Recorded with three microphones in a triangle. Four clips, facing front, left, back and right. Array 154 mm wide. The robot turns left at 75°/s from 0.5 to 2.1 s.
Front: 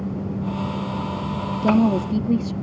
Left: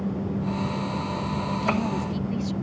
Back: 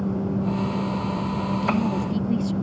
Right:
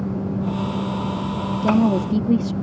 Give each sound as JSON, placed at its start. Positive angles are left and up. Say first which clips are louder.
{"t": 1.6, "sound": "a woman speaking", "louder": "right 11 dB, front 9 dB", "azimuth_deg": -30}